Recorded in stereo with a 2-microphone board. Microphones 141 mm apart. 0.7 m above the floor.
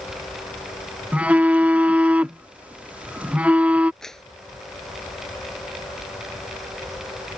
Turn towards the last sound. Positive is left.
turn(degrees=5)  # may be behind; listen again after turning